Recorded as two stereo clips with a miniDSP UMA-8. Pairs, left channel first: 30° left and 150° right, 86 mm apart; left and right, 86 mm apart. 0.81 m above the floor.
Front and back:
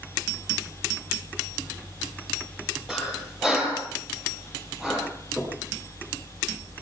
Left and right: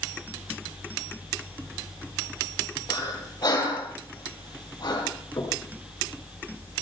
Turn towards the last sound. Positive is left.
turn(degrees=130)